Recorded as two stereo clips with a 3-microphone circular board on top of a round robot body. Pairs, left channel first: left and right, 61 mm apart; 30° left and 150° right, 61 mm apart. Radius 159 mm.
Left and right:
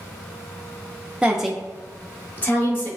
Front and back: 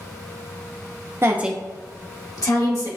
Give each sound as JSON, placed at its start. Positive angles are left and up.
{"t": 1.2, "sound": "a woman speaking", "azimuth_deg": -155, "distance_m": 0.9}